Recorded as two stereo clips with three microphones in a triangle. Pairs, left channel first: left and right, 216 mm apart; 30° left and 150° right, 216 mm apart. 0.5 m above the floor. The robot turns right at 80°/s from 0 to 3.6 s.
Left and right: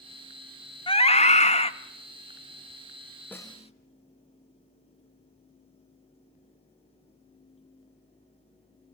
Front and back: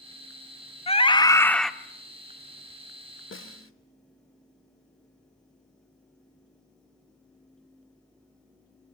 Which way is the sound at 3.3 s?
10° left.